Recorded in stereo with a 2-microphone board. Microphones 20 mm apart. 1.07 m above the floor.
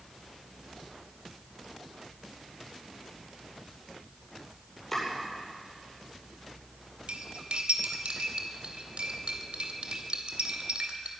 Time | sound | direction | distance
4.9 | chopping | 15° left (ahead or behind) | 9.5 m
7.1 | cutlery clinking | 80° right | 2.5 m